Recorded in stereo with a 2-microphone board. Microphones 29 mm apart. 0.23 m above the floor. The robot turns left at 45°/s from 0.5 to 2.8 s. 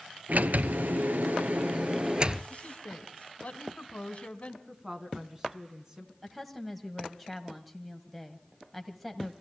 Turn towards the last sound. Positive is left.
turn(degrees=0)  # may be behind; listen again after turning